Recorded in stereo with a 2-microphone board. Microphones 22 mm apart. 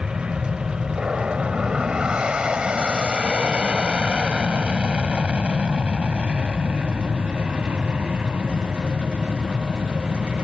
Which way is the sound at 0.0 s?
30° right (ahead or behind).